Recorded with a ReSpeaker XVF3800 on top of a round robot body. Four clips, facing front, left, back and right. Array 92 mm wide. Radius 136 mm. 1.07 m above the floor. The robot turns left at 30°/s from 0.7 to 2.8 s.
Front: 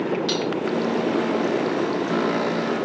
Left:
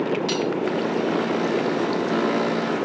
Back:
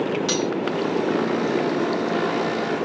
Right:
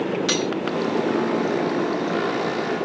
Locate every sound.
0.3 s cutlery clinking: 100° right